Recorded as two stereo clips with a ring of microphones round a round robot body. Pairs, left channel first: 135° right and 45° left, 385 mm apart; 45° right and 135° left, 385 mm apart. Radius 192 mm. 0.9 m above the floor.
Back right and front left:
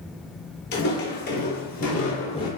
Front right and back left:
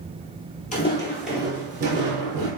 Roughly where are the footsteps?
Right.